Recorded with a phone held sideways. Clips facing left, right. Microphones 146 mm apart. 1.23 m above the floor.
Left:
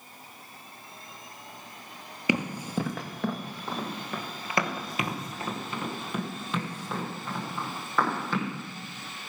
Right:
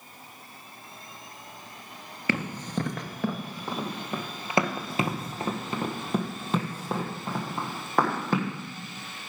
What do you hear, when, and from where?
2.3 s running footsteps: 15° left (ahead or behind), 1.2 m; by 8.5 s 45° right (ahead or behind), 3.5 m